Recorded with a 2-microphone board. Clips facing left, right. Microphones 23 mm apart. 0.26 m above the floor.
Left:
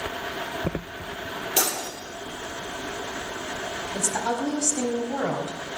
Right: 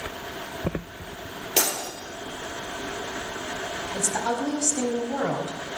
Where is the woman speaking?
5° left (ahead or behind), 1.4 m.